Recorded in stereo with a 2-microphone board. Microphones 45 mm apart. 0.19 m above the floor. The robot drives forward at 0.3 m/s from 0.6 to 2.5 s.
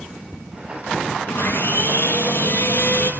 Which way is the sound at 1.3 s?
55° left (ahead or behind).